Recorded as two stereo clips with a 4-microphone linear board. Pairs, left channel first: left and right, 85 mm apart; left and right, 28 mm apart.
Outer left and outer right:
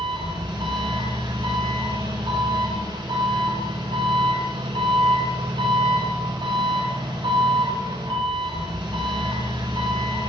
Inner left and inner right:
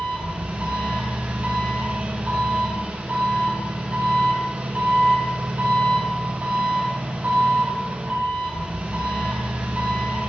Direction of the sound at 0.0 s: 70° right (ahead or behind).